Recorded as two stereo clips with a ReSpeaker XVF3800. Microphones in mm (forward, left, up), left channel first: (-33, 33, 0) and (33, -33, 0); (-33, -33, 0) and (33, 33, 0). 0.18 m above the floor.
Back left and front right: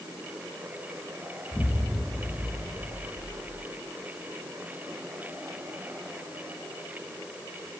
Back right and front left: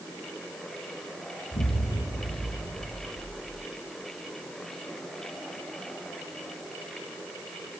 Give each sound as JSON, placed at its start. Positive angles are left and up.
{"t": 1.5, "sound": "an explosion", "azimuth_deg": -145, "distance_m": 4.5}